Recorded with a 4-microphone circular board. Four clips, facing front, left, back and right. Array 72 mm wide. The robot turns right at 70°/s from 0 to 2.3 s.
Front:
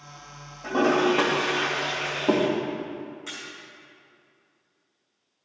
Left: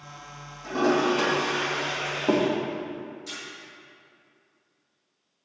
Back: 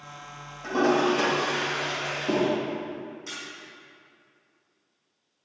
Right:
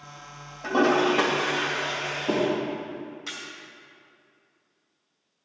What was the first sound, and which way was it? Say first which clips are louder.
A toilet flushing: right 2 dB, front 1 dB; 85° right.